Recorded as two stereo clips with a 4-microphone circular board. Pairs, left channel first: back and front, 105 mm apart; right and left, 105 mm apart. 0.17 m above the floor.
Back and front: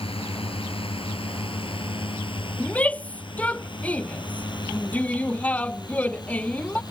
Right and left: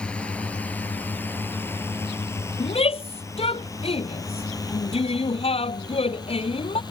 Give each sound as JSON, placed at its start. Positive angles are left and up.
{"t": 0.0, "sound": "a drone", "azimuth_deg": -170}
{"t": 2.6, "sound": "a shout", "azimuth_deg": -105}